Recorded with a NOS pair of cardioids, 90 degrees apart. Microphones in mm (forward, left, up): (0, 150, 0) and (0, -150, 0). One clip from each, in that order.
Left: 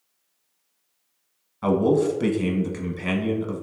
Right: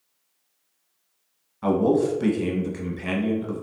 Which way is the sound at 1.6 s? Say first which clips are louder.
Left 1 dB; 15° left.